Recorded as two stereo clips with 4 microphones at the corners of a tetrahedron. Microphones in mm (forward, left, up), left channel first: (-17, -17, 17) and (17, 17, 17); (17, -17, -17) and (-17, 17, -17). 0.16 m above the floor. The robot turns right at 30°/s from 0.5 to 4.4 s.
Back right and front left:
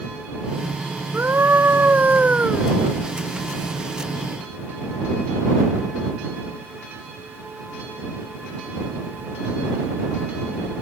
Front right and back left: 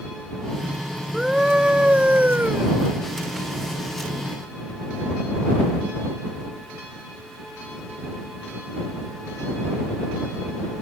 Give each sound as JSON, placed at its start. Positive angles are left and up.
{"t": 1.1, "sound": "a scream", "azimuth_deg": 55}